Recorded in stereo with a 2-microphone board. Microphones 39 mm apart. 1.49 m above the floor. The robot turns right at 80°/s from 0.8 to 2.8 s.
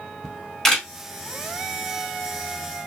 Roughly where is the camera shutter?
Centre.